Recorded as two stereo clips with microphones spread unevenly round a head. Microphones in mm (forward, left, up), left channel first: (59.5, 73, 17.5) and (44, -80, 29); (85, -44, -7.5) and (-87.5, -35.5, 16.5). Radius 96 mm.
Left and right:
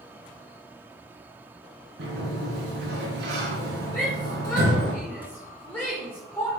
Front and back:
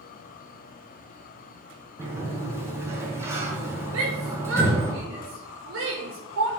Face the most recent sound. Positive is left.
turn(degrees=165)